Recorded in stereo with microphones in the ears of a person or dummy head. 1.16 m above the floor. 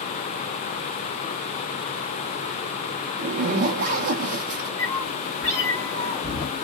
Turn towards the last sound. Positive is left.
turn(degrees=10)  # may be behind; listen again after turning